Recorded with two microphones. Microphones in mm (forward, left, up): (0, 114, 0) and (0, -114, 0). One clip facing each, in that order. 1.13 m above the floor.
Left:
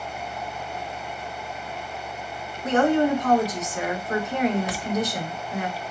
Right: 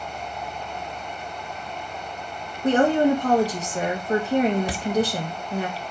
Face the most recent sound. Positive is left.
turn(degrees=-35)  # may be behind; listen again after turning